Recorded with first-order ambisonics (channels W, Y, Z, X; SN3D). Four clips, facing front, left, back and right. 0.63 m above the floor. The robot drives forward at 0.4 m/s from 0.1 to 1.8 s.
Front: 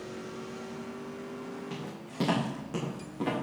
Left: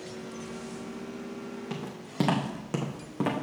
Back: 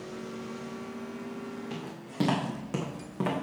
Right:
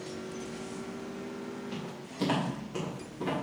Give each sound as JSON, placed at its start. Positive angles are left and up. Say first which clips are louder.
{"t": 1.7, "sound": "footsteps", "louder": "left 2 dB, even", "azimuth_deg": 95, "distance_m": 3.0}